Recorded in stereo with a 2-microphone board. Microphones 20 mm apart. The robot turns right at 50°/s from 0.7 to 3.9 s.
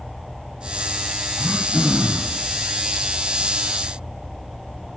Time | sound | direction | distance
1.4 | throat clearing | 170° right | 1.7 m